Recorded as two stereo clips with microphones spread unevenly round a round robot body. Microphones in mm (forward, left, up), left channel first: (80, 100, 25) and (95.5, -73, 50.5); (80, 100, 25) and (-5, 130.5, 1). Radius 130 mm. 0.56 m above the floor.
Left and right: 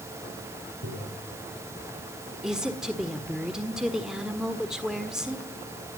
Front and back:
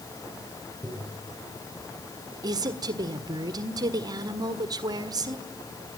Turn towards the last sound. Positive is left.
turn(degrees=-175)